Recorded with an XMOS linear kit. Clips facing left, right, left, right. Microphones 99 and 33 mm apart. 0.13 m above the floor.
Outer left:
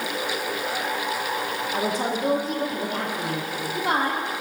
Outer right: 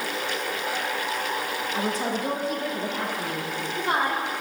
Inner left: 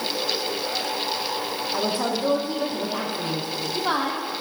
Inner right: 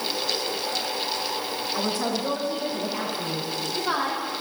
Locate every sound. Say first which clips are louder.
1.7 s a woman speaking: outer left 2 dB, inner left 2 dB; 55° left (ahead or behind), 5 m; by 4.2 s 70° left (ahead or behind), 4.5 m